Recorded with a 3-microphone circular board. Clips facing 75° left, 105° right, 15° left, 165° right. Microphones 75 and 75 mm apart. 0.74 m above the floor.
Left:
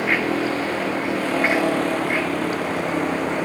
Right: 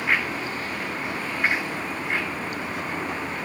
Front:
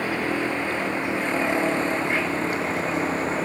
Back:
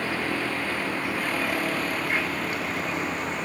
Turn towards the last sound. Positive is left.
turn(degrees=70)